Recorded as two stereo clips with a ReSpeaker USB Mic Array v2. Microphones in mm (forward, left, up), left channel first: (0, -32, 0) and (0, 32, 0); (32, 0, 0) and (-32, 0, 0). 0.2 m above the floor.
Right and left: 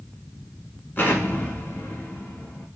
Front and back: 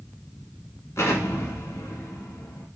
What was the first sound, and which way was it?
An explosion, 35° right.